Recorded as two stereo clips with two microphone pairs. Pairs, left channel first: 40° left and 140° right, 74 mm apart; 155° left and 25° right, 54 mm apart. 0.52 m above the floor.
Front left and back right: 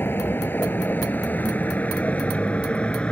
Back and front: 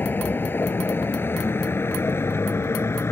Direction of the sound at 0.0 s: 105° left.